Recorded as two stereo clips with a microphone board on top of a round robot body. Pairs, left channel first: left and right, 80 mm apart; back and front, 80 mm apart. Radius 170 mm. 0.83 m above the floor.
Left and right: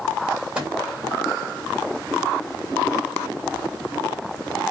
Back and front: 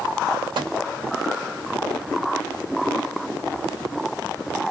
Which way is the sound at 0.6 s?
15° right.